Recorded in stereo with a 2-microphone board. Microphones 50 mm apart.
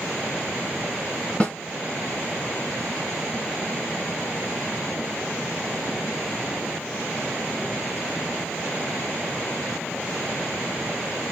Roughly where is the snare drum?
Left.